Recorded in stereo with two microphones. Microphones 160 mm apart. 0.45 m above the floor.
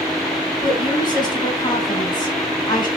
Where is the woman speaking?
25° left (ahead or behind), 5.5 m.